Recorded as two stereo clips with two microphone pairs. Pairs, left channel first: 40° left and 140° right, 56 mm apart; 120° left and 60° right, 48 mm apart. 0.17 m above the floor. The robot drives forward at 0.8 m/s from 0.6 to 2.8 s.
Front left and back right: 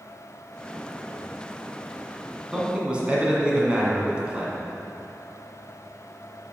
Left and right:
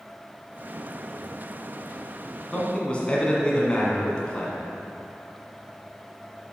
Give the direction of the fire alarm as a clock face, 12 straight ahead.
I don't hear a fire alarm.